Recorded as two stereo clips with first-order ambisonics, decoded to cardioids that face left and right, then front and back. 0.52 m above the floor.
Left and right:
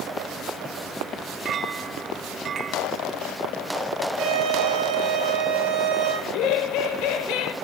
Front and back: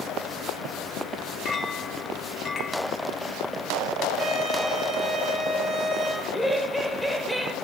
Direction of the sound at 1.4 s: 55° right.